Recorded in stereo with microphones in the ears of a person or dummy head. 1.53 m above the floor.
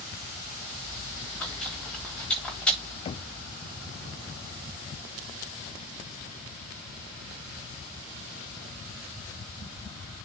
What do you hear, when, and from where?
0.8 s chewing: 5° left (ahead or behind), 4 m
3.0 s knocking: 30° left (ahead or behind), 0.5 m